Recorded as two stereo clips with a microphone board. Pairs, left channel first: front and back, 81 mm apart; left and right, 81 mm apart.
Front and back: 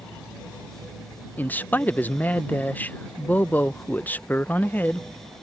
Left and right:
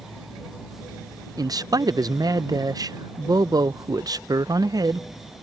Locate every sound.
1.4 s a man speaking: 65° right